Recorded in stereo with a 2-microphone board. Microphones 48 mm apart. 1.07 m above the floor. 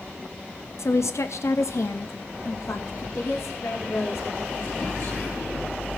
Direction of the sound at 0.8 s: 70° left (ahead or behind).